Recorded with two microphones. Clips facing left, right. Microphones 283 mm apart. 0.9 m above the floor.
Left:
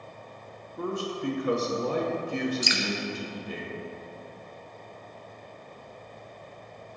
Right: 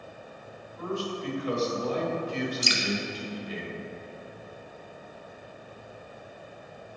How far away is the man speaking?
About 1.0 m.